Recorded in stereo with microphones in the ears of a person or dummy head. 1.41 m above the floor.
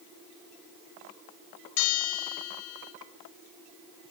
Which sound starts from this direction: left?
A bell, at 1.8 s.